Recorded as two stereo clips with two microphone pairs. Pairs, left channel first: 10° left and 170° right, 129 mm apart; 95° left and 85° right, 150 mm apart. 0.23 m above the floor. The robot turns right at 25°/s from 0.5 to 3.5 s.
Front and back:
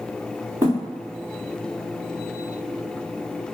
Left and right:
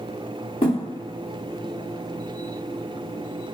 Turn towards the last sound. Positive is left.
turn(degrees=-165)